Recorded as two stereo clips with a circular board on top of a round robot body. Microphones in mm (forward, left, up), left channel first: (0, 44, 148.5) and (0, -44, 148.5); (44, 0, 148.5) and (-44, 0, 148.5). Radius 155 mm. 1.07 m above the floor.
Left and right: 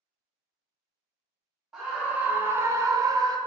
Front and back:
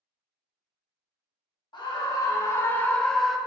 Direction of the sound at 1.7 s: 5° right.